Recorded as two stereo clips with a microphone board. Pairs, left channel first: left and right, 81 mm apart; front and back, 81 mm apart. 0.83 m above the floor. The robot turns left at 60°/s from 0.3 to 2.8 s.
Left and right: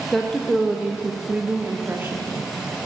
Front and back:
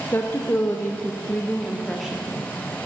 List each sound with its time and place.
0.1 s a woman speaking: 5° left, 0.6 m; by 2.2 s 110° right, 0.6 m